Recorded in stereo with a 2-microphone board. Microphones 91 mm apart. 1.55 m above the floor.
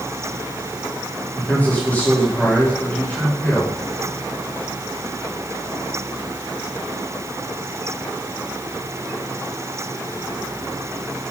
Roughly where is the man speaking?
Centre.